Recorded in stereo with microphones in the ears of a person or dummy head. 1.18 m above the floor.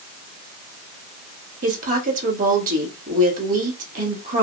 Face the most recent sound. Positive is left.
turn(degrees=-45)  # may be behind; listen again after turning